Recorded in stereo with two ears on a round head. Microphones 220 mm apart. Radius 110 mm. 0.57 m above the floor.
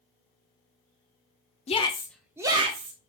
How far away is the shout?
About 0.6 m.